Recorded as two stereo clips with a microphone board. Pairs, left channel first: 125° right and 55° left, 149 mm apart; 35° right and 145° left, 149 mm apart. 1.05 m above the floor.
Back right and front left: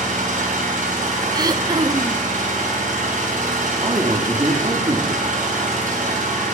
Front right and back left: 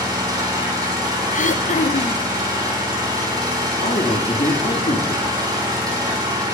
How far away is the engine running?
About 3.5 m.